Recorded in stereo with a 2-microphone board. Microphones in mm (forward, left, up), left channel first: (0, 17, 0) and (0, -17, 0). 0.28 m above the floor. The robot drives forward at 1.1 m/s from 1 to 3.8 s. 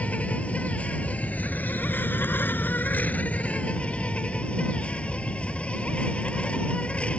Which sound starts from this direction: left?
An insect, at 0.0 s.